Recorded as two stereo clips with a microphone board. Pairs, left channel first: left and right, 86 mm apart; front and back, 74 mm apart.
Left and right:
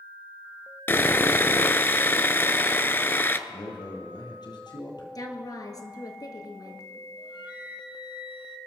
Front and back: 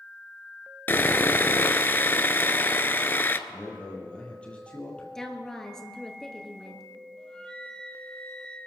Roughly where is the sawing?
Ahead left.